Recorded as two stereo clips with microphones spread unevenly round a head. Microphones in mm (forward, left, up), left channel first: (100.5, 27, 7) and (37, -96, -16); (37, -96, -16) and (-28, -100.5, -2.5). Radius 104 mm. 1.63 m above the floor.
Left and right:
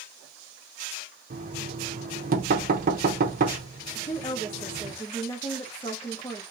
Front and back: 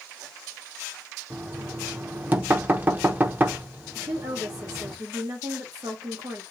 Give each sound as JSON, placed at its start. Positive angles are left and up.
{"t": 1.3, "sound": "knocking", "azimuth_deg": -135, "distance_m": 0.9}
{"t": 4.0, "sound": "a woman speaking", "azimuth_deg": 135, "distance_m": 1.3}